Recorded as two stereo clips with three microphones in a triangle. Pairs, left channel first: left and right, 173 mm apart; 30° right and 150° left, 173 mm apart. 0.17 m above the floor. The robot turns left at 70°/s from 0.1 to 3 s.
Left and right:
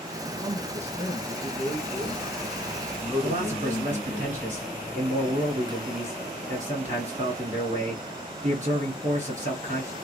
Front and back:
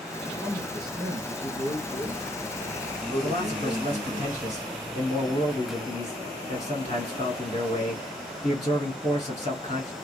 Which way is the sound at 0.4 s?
125° right.